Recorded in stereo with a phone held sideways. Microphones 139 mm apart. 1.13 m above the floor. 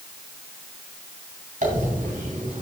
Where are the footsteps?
I don't hear footsteps.